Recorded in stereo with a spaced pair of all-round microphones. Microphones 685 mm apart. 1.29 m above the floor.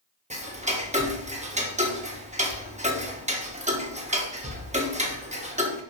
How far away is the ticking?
About 1.2 m.